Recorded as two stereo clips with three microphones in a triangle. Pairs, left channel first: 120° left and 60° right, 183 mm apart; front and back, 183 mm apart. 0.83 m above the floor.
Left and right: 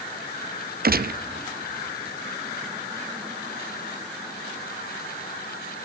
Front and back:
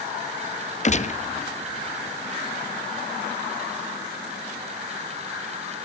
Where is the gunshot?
40° right, 0.5 m.